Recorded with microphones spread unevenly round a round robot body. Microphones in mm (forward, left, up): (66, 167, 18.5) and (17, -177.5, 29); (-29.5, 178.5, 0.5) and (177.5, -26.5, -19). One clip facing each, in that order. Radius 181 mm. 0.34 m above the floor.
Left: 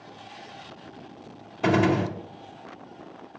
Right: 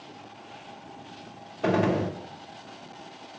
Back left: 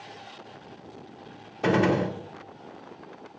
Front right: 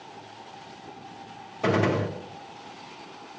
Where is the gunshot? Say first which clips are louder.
Left 2 dB, back left 2 dB; 25° left, 1.7 m.